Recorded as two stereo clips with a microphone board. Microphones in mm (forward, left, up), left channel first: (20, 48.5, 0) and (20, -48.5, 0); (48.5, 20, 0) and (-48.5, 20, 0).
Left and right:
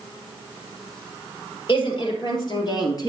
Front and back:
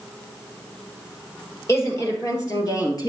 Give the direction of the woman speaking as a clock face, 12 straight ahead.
10 o'clock.